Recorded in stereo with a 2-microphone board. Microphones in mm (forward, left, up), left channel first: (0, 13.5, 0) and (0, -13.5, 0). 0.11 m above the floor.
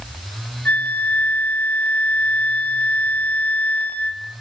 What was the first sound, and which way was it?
A flute, 65° left (ahead or behind).